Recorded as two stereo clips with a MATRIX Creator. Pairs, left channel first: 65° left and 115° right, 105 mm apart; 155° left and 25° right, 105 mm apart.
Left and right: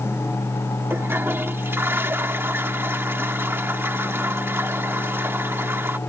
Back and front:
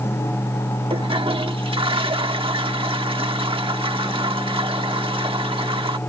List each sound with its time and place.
0.9 s a toilet flushing: 45° right